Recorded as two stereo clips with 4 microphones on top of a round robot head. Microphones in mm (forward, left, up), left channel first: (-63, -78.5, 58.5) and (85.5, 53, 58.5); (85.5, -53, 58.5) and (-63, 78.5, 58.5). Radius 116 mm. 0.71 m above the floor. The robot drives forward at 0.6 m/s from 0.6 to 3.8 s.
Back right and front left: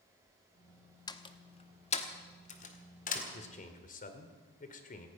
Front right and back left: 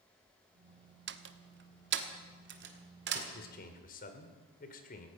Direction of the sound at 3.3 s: 80° right.